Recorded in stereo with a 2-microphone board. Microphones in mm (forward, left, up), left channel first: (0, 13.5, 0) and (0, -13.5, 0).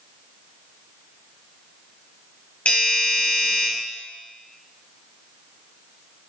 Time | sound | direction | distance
2.6 | a doorbell | 70° left (ahead or behind) | 1.1 m